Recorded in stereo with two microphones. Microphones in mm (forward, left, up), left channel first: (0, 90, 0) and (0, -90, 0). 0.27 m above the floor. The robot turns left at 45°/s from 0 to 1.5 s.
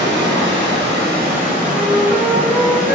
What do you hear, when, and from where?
0.0 s running water: 65° right, 0.9 m; by 3.0 s 135° right, 0.9 m
1.7 s a flute: 20° right (ahead or behind), 0.7 m